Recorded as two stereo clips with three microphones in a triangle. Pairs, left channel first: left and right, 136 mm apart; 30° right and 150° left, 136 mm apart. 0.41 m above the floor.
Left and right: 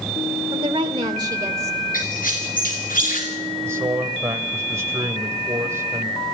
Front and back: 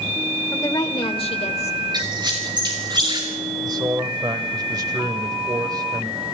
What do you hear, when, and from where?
0.5 s a woman speaking: 85° right, 1.2 m; by 1.8 s 25° right, 1.6 m
1.9 s a squeak: 95° left, 4 m
3.6 s a man speaking: 155° right, 1.5 m